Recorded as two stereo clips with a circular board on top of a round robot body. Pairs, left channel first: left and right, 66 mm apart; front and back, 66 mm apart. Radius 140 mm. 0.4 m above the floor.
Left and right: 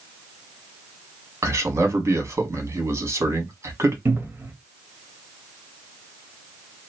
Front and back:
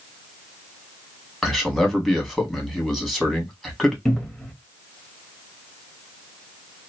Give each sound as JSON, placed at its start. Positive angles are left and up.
{"t": 1.4, "sound": "a man speaking", "azimuth_deg": -90, "distance_m": 1.8}
{"t": 4.0, "sound": "a cupboard door", "azimuth_deg": -85, "distance_m": 1.4}